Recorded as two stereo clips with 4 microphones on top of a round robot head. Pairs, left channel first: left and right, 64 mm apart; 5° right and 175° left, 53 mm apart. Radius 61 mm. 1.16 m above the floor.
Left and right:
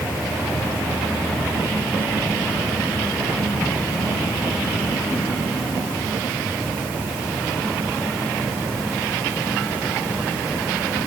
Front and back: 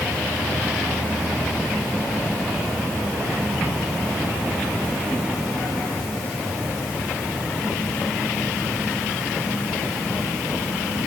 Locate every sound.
Only background noise.